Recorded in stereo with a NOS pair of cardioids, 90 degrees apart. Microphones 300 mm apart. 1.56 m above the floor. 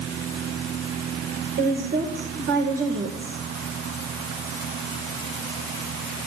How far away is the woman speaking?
About 2.5 m.